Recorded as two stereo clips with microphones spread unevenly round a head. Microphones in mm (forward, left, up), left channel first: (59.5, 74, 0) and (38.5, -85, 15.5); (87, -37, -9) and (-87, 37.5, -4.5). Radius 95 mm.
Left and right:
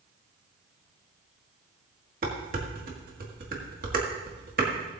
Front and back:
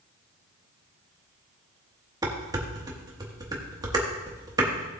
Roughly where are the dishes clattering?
Behind right.